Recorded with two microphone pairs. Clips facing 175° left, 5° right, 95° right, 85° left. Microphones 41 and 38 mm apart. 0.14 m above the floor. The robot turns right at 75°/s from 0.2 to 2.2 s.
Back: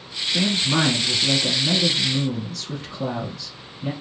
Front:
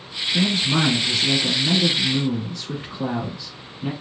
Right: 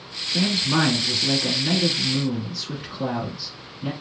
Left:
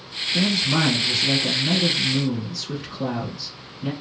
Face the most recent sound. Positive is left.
turn(degrees=-25)